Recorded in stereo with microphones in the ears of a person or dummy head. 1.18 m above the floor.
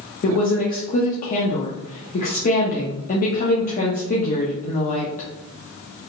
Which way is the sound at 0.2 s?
35° left (ahead or behind).